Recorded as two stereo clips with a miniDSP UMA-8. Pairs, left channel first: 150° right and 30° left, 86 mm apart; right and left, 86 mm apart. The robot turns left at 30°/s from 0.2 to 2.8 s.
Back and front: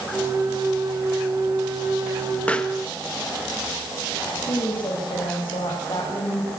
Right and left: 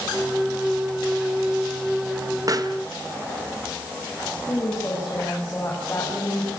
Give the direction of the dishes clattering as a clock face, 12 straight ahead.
I don't hear dishes clattering.